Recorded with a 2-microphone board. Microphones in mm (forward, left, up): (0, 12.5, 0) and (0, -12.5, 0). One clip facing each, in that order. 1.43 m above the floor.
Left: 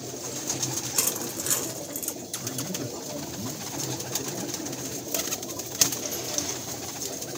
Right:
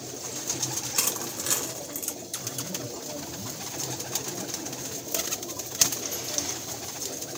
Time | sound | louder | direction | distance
0.9 | crushing | right 1 dB | 20° right (ahead or behind) | 1.5 m
2.4 | a man speaking | left 3 dB | 30° left (ahead or behind) | 1.6 m